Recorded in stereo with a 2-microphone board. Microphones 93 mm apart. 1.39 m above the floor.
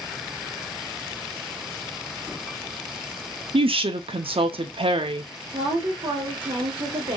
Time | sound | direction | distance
3.5 | a woman speaking | 65° right (ahead or behind) | 0.5 m
5.5 | a woman speaking | 65° right (ahead or behind) | 1.2 m